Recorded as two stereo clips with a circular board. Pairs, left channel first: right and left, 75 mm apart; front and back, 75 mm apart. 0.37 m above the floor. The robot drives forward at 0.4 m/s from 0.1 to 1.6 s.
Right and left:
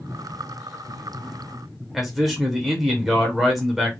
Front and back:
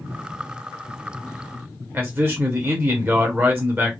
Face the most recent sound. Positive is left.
turn(degrees=170)